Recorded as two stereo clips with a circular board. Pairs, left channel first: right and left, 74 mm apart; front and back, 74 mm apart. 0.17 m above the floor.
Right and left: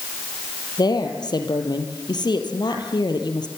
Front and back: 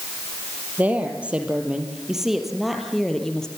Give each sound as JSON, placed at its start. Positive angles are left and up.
{"t": 0.8, "sound": "a woman speaking", "azimuth_deg": -110, "distance_m": 4.5}